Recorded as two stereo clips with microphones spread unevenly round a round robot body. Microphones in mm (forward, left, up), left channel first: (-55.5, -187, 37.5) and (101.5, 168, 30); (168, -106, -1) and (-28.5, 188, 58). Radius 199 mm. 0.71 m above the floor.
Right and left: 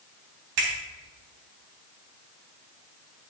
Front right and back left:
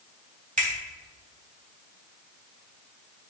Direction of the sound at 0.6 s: 55° left.